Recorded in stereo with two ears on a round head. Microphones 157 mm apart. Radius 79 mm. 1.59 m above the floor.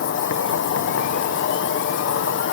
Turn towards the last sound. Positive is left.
turn(degrees=80)